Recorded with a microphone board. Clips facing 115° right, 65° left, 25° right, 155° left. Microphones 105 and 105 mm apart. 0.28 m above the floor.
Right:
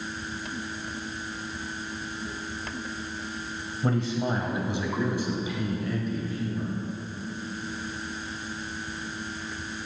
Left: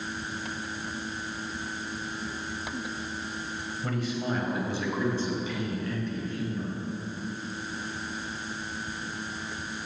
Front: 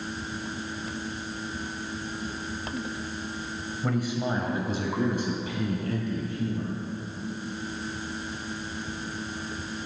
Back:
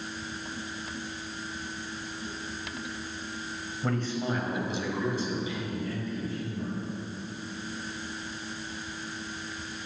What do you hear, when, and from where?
3.8 s a man speaking: 115° right, 1.0 m; by 6.7 s 30° right, 3.5 m